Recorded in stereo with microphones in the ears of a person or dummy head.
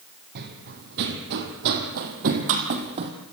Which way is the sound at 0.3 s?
60° right (ahead or behind).